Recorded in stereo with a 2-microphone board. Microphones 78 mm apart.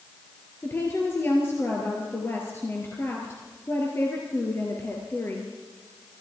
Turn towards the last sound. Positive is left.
turn(degrees=30)  # may be behind; listen again after turning